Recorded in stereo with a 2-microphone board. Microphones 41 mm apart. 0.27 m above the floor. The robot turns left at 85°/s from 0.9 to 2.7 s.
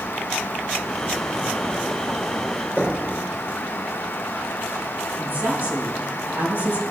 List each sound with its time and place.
2.8 s knocking: 40° right (ahead or behind), 4 m
5.2 s a woman speaking: 50° right (ahead or behind), 4.5 m